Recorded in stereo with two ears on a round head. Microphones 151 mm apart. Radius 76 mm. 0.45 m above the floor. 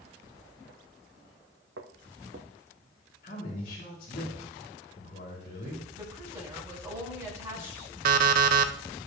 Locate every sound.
1.8 s footsteps: 75° right (ahead or behind), 1.7 m
3.2 s a man speaking: 45° left (ahead or behind), 3.5 m
5.9 s a woman speaking: 15° right (ahead or behind), 4.5 m
8.1 s an alarm clock: 60° right (ahead or behind), 0.7 m